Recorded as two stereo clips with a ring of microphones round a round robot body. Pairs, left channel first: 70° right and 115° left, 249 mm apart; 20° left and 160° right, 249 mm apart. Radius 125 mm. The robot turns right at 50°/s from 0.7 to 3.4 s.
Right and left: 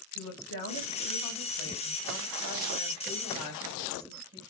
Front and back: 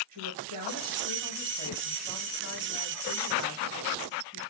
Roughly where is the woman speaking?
Right.